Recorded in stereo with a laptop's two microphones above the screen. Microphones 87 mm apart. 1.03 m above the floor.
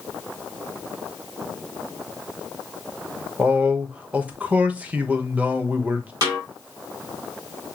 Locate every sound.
3.4 s a man speaking: 15° right (ahead or behind), 1.2 m
6.2 s a snare drum: 45° right (ahead or behind), 2 m